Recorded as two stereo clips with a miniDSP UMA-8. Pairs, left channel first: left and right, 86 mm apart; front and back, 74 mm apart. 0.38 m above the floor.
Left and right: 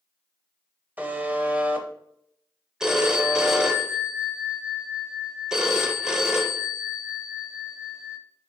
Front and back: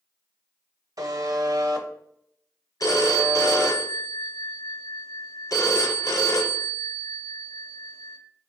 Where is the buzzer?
160° right, 0.5 m.